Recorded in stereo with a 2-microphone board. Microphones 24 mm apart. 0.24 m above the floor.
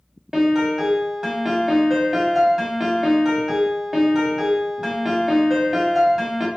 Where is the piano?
20° right (ahead or behind), 0.9 m.